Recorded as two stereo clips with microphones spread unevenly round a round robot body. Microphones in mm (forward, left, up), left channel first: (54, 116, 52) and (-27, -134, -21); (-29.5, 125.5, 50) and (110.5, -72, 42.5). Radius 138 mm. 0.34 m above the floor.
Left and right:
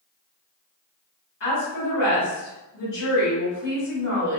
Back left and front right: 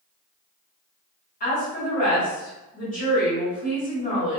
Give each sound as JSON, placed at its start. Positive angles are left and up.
{"t": 1.4, "sound": "a woman speaking", "azimuth_deg": 100, "distance_m": 1.7}